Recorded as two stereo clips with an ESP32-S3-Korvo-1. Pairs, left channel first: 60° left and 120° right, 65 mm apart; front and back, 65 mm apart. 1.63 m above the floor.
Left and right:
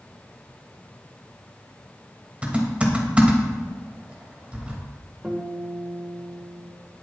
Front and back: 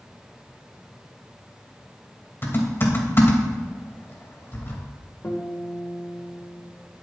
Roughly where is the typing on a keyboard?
Ahead right.